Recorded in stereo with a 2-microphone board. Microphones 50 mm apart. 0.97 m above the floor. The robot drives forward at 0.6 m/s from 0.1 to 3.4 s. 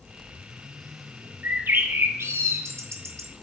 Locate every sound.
1.4 s a bird: 45° right (ahead or behind), 1.5 m; by 3.3 s 85° right, 1.1 m